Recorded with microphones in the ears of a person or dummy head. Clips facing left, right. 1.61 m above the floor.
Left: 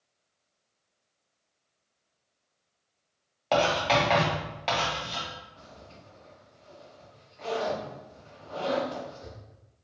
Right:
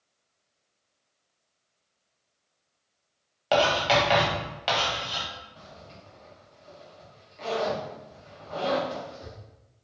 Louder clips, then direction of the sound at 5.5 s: Right 2 dB; 25° right (ahead or behind).